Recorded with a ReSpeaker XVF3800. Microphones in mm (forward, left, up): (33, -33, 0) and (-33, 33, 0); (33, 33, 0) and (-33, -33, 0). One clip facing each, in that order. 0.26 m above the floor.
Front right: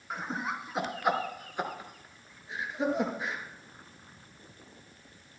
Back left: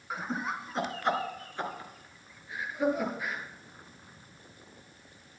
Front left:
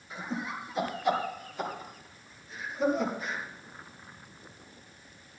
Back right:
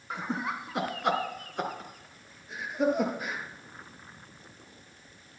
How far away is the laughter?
About 3 m.